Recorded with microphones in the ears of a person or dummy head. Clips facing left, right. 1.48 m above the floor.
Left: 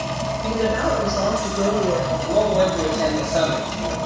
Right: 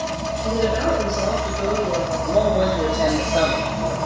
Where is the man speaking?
10° left (ahead or behind), 1.4 m.